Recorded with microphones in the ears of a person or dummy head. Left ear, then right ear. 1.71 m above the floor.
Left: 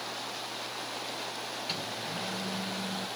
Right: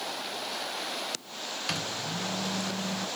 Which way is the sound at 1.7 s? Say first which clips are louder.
Right 4 dB; 50° right (ahead or behind).